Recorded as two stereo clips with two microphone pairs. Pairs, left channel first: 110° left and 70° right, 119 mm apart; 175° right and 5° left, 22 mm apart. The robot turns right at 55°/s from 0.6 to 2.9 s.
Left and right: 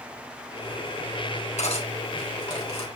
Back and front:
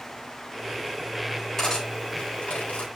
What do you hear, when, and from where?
1.6 s cutlery clinking: 110° left, 3 m; by 2.9 s straight behind, 3 m